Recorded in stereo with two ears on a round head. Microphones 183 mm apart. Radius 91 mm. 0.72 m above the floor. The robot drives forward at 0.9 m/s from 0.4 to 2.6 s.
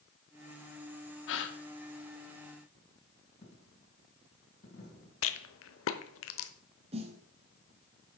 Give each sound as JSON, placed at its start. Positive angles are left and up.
{"t": 1.3, "sound": "a gasp", "side_deg": 65, "distance_m": 1.0}
{"t": 3.4, "sound": "a dropped coin", "side_deg": 35, "distance_m": 2.5}
{"t": 5.2, "sound": "a rattle", "side_deg": 70, "distance_m": 0.9}
{"t": 6.9, "sound": "a snare drum", "side_deg": -30, "distance_m": 1.4}